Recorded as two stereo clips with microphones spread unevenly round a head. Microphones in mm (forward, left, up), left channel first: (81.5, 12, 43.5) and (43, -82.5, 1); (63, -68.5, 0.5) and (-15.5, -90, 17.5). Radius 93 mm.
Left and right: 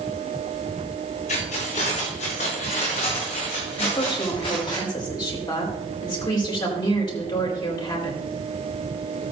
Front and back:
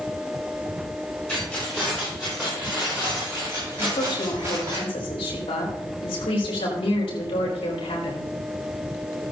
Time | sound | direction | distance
1.3 | keys jangling | 105° left | 4 m
3.8 | a woman speaking | 25° left | 4.5 m